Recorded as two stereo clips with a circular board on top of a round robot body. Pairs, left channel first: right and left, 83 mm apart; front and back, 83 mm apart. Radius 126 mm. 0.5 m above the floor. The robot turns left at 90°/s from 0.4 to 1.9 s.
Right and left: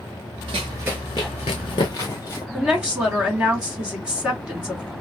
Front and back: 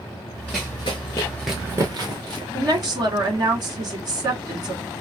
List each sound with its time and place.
0.5 s running footsteps: 105° left, 0.6 m; by 2.4 s 145° right, 1.2 m
2.5 s a woman speaking: 165° left, 2 m